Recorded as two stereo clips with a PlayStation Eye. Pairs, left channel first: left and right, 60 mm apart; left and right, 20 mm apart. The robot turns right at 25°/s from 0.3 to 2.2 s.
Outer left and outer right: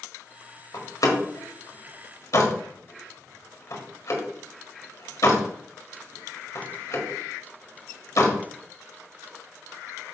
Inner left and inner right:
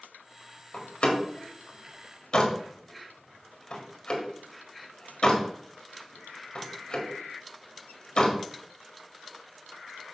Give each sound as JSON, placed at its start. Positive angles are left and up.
{"t": 0.7, "sound": "a door slam", "side_deg": 70, "distance_m": 1.6}